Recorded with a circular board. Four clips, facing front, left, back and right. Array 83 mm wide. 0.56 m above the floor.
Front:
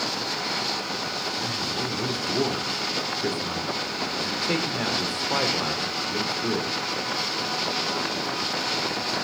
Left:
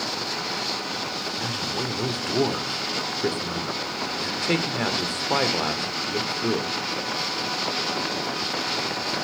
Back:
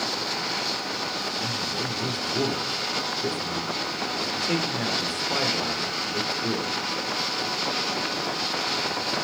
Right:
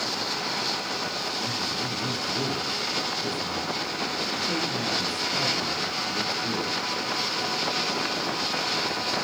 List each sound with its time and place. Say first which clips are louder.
1.4 s a man speaking: left 2 dB, front 1 dB; 80° left, 1.6 m